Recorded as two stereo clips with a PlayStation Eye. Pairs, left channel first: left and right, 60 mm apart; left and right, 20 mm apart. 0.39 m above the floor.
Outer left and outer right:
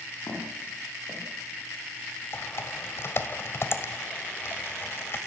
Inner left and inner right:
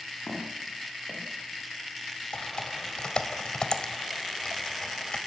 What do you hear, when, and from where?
0.3 s footsteps: 85° left, 10 m
2.3 s typing on a keyboard: 45° left (ahead or behind), 2.0 m